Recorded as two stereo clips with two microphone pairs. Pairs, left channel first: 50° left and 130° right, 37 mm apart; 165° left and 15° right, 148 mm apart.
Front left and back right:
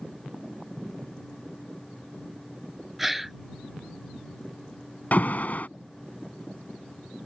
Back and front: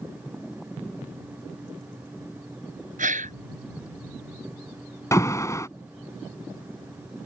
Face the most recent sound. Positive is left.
turn(degrees=95)